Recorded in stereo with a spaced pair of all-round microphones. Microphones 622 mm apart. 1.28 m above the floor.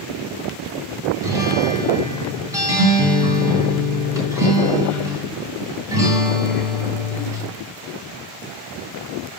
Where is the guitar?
5° right (ahead or behind), 3.5 m.